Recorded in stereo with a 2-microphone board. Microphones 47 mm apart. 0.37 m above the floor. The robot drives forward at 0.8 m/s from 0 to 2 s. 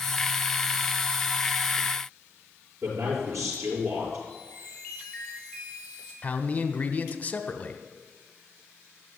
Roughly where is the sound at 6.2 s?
Left.